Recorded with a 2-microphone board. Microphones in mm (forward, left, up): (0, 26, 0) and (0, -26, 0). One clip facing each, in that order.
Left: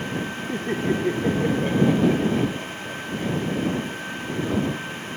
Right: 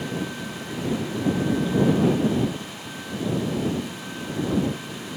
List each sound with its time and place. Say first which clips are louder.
0.5 s laughter: left 7 dB; 50° left (ahead or behind); by 4.1 s 65° left (ahead or behind)